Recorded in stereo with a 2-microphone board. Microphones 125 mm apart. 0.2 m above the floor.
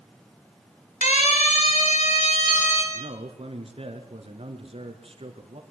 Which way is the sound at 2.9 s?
50° right (ahead or behind).